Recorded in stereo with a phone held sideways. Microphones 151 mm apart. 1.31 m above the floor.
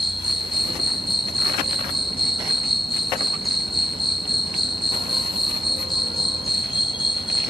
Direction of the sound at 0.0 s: 35° left (ahead or behind).